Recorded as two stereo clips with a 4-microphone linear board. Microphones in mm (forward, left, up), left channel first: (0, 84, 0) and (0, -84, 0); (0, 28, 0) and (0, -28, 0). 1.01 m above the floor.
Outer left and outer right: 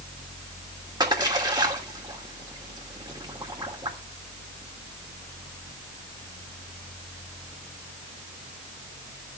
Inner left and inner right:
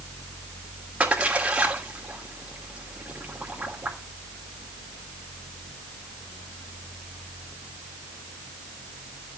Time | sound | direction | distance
1.0 | a splash | 25° right (ahead or behind) | 3 m